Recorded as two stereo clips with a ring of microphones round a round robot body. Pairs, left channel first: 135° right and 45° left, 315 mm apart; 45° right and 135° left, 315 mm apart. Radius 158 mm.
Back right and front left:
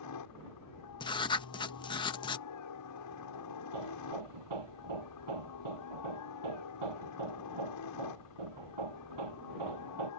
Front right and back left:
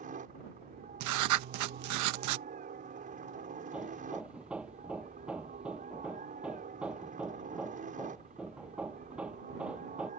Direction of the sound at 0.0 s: 160° right.